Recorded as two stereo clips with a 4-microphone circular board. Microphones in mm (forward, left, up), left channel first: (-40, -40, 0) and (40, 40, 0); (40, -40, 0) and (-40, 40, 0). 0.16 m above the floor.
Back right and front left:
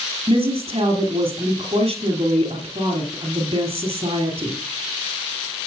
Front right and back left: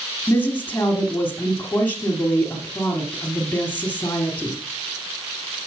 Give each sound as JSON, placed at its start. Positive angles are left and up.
{"t": 0.3, "sound": "a woman speaking", "azimuth_deg": 25, "distance_m": 2.5}